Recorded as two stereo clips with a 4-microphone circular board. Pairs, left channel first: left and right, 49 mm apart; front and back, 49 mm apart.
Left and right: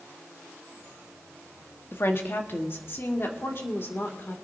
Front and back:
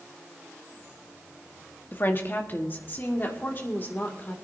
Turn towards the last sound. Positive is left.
turn(degrees=45)